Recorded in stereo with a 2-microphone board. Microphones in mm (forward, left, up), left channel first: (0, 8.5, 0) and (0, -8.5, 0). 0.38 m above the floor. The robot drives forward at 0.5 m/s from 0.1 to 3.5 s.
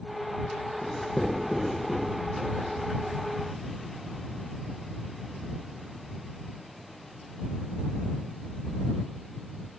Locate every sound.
0.8 s writing: 50° left (ahead or behind), 2.5 m; by 2.7 s 35° left (ahead or behind), 3 m